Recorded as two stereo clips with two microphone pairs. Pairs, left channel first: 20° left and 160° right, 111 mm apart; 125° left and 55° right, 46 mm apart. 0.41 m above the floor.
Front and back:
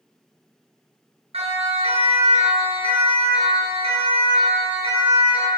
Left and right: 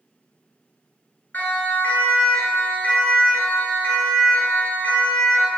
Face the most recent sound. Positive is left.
turn(degrees=165)